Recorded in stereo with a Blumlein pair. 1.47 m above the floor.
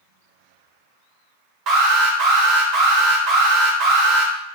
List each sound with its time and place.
1.7 s an alarm: 35° right, 0.7 m